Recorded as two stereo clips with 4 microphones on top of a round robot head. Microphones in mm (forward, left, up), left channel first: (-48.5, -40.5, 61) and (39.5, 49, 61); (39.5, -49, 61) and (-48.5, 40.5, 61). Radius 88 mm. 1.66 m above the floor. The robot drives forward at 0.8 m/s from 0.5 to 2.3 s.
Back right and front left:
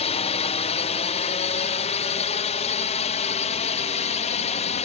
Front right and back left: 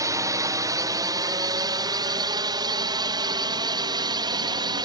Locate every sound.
0.0 s a drone: 165° right; by 4.9 s 170° right